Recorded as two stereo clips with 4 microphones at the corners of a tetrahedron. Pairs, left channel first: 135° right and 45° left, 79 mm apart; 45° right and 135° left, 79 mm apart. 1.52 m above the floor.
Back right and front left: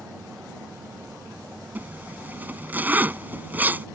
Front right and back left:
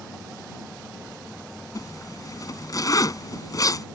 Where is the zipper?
20° right.